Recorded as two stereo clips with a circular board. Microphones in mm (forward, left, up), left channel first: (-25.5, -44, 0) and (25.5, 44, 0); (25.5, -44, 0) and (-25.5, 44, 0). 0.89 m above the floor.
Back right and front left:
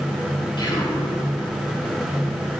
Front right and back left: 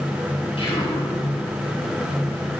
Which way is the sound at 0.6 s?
80° right.